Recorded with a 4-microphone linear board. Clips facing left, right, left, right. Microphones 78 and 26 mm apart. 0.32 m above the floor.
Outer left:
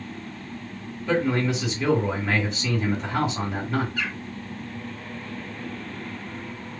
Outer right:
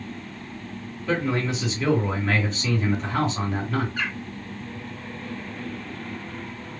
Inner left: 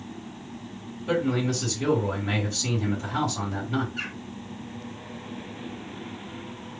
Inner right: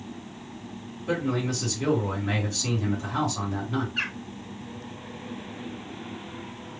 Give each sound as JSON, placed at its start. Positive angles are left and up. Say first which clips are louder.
{"t": 1.1, "sound": "a man speaking", "louder": "outer left 2 dB, inner left 2 dB", "side_deg": 5, "distance_m": 2.5}
{"t": 4.0, "sound": "a bird", "louder": "outer right 1 dB, inner right 4 dB", "side_deg": -45, "distance_m": 0.9}